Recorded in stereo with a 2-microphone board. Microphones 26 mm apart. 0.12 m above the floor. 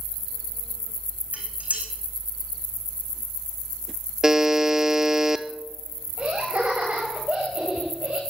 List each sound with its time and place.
1.3 s dishes clattering: 65° right (ahead or behind), 5 m
4.2 s a buzzer: 15° right (ahead or behind), 0.9 m
6.2 s laughter: 55° right (ahead or behind), 10 m